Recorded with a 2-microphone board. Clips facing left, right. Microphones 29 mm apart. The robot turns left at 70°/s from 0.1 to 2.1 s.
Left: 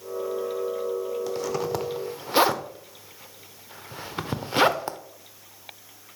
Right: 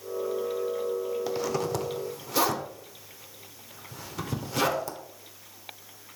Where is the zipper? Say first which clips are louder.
Left 1 dB; 15° right (ahead or behind), 1.0 m; by 5.0 s 40° left (ahead or behind), 1.0 m.